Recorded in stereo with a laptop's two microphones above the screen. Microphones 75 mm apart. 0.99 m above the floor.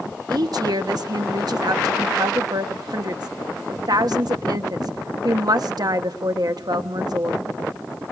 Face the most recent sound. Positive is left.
turn(degrees=-60)  # may be behind; listen again after turning